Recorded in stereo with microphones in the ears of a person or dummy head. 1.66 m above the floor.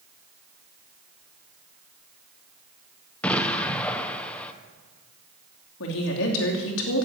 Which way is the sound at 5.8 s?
80° left.